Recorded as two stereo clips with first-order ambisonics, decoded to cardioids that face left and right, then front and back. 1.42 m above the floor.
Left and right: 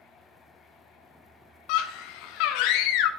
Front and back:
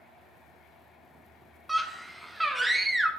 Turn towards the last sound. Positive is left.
turn(degrees=95)